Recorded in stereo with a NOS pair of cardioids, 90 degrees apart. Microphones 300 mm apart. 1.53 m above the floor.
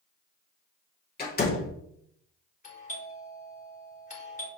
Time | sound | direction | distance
1.2 | a door slam | 30° left | 3 m
2.6 | a doorbell | 25° left | 3.5 m